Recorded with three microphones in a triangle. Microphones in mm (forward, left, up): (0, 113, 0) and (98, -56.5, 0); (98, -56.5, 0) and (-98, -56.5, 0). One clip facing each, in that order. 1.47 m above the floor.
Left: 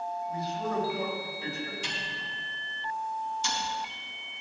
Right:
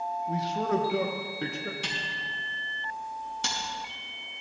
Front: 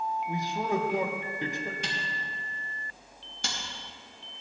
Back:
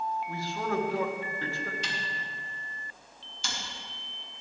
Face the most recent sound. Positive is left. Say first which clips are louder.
# right 1 dB, front 1 dB
turn(degrees=-40)